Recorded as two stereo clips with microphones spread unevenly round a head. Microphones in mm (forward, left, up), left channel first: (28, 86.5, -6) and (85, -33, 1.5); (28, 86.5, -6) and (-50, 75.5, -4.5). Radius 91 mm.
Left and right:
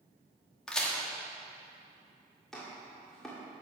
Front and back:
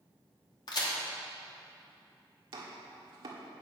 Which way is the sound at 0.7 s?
30° left.